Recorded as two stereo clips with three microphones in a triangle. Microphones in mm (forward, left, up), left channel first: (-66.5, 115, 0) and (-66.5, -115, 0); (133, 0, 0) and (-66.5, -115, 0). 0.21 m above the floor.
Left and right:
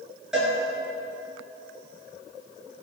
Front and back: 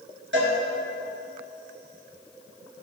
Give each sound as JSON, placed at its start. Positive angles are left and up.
{"t": 0.3, "sound": "a cowbell", "azimuth_deg": -175, "distance_m": 3.5}